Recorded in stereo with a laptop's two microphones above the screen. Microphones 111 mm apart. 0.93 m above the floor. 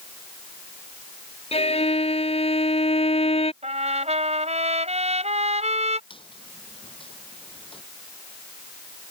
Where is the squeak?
50° left (ahead or behind).